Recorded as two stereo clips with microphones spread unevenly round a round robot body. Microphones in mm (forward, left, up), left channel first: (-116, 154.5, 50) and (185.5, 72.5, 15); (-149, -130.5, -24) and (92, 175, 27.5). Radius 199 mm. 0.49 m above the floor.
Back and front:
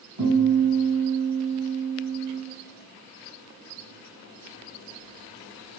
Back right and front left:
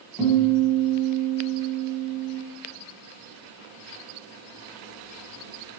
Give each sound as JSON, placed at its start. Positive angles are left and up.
{"t": 0.2, "sound": "a guitar", "azimuth_deg": -45, "distance_m": 1.4}